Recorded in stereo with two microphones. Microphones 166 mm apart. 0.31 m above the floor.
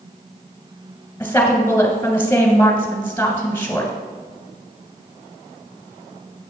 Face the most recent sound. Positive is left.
turn(degrees=15)  # may be behind; listen again after turning